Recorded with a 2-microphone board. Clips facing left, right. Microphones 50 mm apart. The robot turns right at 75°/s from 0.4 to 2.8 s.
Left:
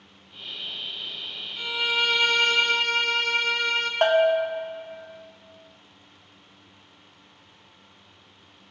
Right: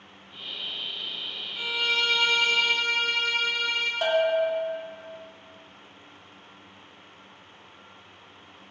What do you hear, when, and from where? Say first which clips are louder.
1.6 s a violin: left 1 dB; 15° right, 0.6 m; by 3.9 s 80° left, 0.6 m
4.0 s a bell: left 4 dB; 50° left (ahead or behind), 0.6 m